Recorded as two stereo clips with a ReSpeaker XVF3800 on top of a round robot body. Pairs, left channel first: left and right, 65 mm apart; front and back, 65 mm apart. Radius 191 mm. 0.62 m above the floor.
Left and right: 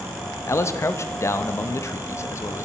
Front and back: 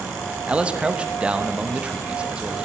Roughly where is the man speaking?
Left.